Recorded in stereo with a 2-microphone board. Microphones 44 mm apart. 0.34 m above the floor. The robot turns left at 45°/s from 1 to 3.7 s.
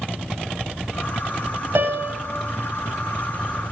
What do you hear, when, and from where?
1.8 s a piano: 70° right (ahead or behind), 0.6 m; by 2.2 s 60° right (ahead or behind), 0.6 m